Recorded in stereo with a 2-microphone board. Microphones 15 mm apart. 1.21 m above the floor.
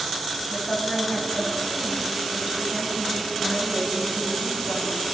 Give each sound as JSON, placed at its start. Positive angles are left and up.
{"t": 0.5, "sound": "a woman speaking", "side_deg": 30, "distance_m": 8.5}